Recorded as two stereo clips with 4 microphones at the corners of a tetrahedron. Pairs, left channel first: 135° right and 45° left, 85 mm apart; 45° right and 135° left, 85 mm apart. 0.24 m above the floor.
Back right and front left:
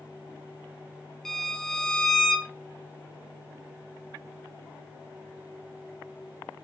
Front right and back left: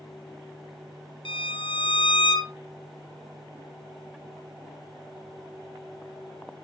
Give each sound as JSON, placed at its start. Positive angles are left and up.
{"t": 1.2, "sound": "a violin", "azimuth_deg": -50, "distance_m": 1.1}